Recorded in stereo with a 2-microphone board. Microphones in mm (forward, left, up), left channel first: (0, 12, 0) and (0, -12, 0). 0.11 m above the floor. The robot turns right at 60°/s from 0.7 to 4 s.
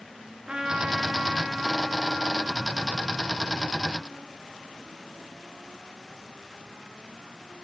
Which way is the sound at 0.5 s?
105° right.